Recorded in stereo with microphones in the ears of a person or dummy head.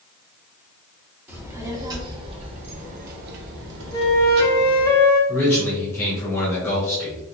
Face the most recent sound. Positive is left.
turn(degrees=20)  # may be behind; listen again after turning